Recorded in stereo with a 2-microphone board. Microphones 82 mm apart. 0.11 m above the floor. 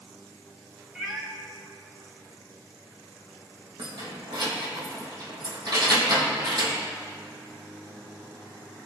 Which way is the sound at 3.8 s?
60° right (ahead or behind).